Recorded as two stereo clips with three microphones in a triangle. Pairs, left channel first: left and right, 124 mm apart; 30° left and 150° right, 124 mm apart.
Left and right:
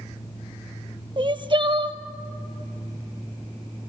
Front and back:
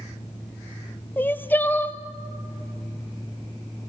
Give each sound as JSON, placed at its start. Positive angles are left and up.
{"t": 1.2, "sound": "crying", "azimuth_deg": -45, "distance_m": 0.8}